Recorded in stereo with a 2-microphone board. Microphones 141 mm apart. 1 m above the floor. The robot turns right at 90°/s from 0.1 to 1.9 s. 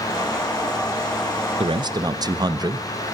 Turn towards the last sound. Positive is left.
turn(degrees=-30)  # may be behind; listen again after turning